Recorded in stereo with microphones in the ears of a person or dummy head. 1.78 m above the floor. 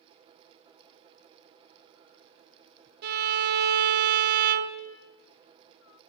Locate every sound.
3.0 s a violin: 60° right (ahead or behind), 0.7 m